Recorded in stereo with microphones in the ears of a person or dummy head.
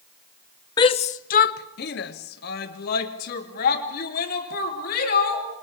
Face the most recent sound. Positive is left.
turn(degrees=50)  # may be behind; listen again after turning